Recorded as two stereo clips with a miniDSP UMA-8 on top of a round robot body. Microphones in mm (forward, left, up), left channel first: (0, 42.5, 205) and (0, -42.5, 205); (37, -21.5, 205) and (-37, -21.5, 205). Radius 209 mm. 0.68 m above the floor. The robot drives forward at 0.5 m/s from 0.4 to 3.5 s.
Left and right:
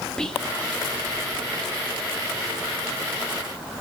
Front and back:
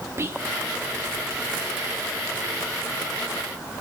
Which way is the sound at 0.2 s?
165° left.